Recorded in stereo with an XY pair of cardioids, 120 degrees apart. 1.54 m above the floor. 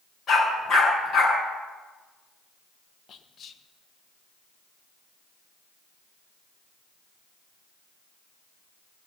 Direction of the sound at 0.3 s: 40° left.